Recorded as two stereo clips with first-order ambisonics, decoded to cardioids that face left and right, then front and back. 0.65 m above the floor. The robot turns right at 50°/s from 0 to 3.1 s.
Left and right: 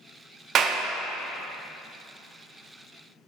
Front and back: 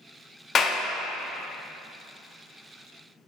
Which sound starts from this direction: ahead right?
A clap, at 0.6 s.